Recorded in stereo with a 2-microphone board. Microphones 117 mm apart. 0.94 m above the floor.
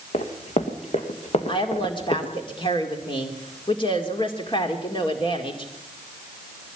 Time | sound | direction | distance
0.1 | running footsteps | 70° left (ahead or behind) | 2.5 m
1.5 | a woman speaking | 45° left (ahead or behind) | 2 m